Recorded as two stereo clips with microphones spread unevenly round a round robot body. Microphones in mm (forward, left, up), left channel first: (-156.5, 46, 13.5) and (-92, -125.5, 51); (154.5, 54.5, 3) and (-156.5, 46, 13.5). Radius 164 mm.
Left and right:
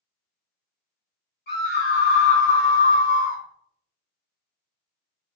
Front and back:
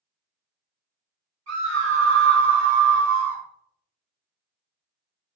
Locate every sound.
1.5 s a scream: 135° left, 1.7 m; by 3.4 s 175° left, 1.1 m